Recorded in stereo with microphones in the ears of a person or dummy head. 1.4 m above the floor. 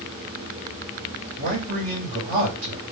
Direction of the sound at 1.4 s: 40° right (ahead or behind).